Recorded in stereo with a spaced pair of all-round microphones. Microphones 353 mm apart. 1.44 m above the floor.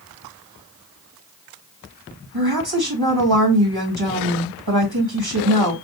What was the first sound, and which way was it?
A woman speaking, 80° right.